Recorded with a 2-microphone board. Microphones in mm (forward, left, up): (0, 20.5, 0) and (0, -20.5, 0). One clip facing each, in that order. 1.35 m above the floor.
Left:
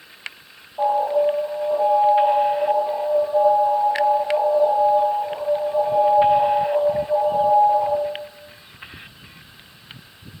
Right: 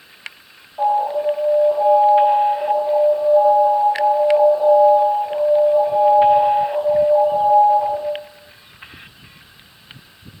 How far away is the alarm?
About 4.5 m.